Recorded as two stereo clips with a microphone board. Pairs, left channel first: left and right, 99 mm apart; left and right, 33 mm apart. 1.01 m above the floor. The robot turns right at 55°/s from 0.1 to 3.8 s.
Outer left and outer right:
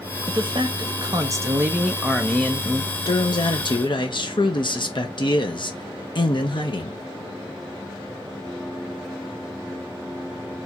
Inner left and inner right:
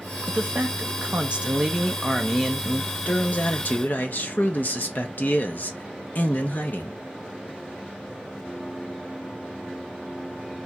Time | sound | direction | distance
0.3 | a man speaking | 100° right | 0.8 m